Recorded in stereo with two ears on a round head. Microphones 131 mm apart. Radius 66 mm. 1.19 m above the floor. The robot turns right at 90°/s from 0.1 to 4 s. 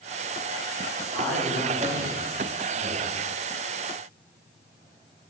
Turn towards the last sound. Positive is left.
turn(degrees=45)